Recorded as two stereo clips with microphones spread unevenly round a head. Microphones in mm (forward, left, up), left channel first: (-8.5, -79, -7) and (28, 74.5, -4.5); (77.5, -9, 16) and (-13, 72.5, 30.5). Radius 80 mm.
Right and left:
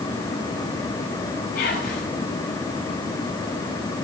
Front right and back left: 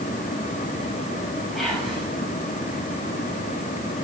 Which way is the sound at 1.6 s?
130° right.